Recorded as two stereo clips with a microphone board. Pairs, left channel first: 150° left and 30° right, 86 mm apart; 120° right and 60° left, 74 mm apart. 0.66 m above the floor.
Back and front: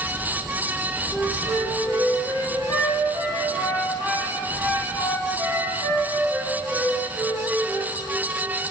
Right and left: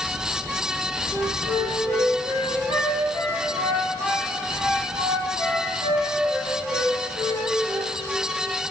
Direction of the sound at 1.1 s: 85° left.